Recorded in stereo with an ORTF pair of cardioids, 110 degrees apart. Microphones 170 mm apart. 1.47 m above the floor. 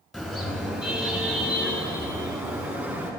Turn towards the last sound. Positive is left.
turn(degrees=-15)